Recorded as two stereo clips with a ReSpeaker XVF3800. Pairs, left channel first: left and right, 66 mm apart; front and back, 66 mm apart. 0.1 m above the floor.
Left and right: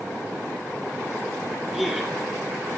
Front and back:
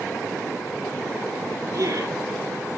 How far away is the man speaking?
About 2.5 m.